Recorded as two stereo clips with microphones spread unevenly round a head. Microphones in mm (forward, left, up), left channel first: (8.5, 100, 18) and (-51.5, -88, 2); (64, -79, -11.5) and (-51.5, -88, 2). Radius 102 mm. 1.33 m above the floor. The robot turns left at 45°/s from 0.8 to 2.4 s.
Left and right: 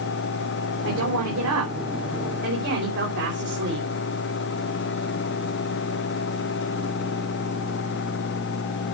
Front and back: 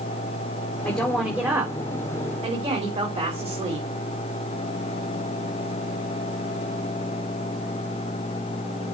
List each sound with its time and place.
0.8 s a woman speaking: 75° right, 3.5 m; by 3.9 s 145° right, 3.5 m